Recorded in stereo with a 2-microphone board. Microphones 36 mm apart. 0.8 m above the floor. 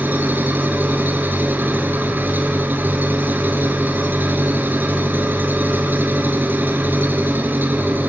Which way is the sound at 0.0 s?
60° right (ahead or behind).